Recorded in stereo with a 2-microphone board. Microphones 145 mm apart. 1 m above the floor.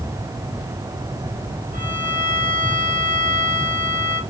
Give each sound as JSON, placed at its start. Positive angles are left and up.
{"t": 1.7, "sound": "a violin", "side_deg": -70, "distance_m": 2.0}